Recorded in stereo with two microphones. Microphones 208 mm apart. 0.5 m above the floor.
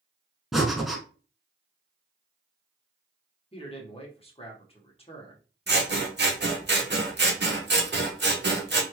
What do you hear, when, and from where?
0.5 s breathing: centre (ahead or behind), 0.7 m
3.5 s a man speaking: 30° left (ahead or behind), 1.1 m
5.7 s scissors: 60° right (ahead or behind), 0.7 m